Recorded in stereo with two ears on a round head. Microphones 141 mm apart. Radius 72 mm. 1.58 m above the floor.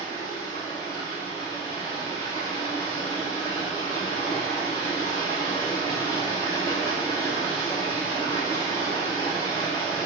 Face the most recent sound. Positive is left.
turn(degrees=25)  # may be behind; listen again after turning